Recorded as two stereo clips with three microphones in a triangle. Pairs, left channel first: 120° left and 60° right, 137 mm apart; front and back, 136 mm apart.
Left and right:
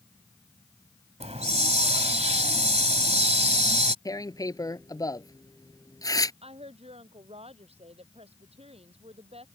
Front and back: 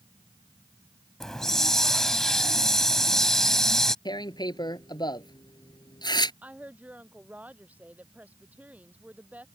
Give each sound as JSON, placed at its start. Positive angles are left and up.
{"t": 1.2, "sound": "a hiss", "azimuth_deg": -90}
{"t": 4.0, "sound": "tearing paper", "azimuth_deg": 55}
{"t": 6.4, "sound": "a woman speaking", "azimuth_deg": -100}